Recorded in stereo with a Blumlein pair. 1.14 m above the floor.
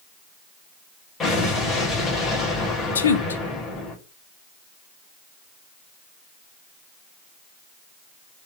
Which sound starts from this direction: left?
A woman speaking, at 3.0 s.